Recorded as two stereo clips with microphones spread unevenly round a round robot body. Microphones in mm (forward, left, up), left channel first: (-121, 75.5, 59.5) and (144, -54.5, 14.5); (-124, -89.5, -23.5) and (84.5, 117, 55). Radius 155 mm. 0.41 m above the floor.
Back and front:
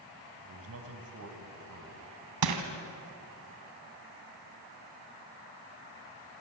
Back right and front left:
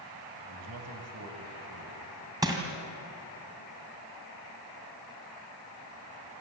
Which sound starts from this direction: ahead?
A man speaking, at 0.5 s.